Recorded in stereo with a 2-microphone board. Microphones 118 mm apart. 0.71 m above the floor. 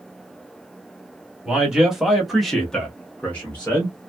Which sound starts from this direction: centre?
A man speaking, at 1.4 s.